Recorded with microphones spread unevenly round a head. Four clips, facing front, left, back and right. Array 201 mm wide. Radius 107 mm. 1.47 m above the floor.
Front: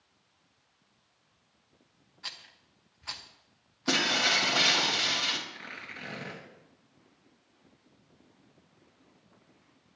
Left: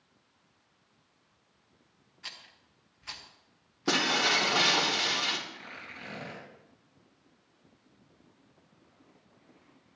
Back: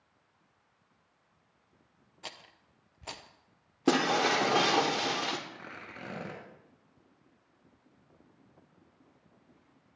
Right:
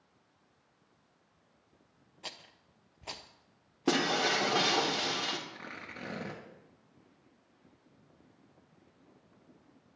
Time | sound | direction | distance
2.2 | a rattle | 135° right | 0.7 m
3.9 | breaking glass | 175° right | 1.7 m
5.5 | tearing paper | 125° right | 3 m